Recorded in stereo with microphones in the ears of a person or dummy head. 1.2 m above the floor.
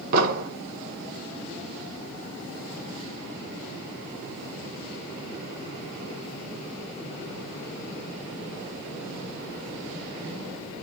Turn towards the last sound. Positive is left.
turn(degrees=-50)  # may be behind; listen again after turning